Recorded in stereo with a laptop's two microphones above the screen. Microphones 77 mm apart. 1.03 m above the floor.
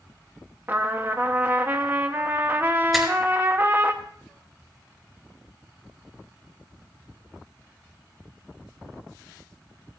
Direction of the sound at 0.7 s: 25° right (ahead or behind).